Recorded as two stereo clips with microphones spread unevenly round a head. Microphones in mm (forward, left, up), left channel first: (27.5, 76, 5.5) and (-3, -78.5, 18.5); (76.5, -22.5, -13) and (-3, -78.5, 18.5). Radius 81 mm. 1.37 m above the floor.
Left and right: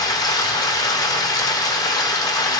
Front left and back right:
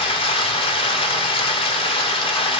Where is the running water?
15° left, 1.3 m.